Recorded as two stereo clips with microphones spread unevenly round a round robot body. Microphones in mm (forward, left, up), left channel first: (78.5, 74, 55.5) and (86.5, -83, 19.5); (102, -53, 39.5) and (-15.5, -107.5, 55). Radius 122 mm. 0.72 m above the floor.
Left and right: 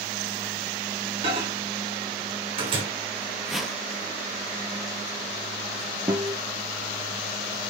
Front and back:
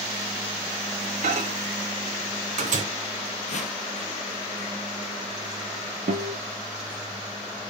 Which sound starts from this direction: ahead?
A whoosh, at 3.5 s.